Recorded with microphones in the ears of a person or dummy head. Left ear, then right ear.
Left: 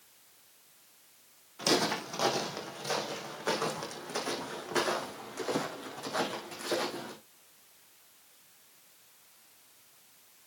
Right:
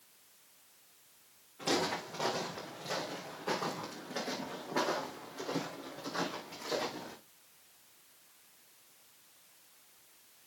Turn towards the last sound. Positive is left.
turn(degrees=70)  # may be behind; listen again after turning